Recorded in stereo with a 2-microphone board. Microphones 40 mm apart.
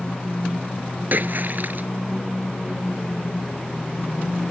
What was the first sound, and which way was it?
A splash, 50° right (ahead or behind).